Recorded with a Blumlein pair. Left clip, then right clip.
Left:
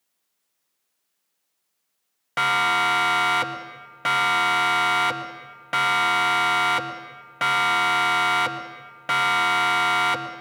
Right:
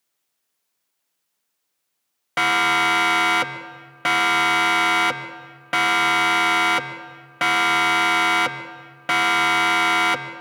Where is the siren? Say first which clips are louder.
Right 2 dB; 10° right, 2 m.